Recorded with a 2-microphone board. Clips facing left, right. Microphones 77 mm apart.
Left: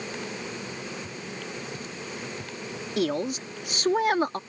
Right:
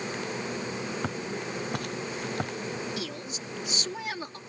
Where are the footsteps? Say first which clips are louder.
Right 4 dB; 70° right (ahead or behind); by 2.5 s 65° right (ahead or behind).